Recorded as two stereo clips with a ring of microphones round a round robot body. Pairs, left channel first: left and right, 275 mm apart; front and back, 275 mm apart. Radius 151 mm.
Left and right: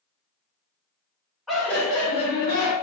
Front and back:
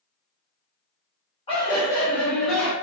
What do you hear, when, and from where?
1.5 s laughter: straight ahead, 1.2 m; by 2.7 s 90° left, 1.4 m